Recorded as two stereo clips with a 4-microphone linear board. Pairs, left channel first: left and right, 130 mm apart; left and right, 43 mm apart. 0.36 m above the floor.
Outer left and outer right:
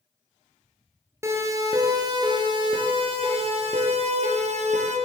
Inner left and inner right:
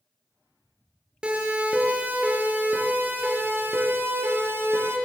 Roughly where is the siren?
Right.